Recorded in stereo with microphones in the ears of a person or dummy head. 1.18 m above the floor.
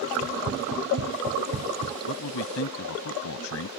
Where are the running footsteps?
70° right (ahead or behind); by 2.0 s 55° right (ahead or behind).